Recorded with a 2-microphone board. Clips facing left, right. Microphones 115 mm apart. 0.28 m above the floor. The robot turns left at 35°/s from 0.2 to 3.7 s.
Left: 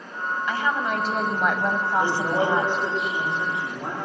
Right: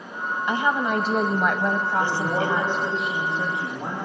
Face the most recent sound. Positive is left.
turn(degrees=-25)